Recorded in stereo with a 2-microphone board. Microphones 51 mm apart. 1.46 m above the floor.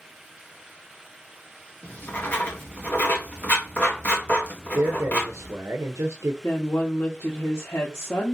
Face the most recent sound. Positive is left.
turn(degrees=85)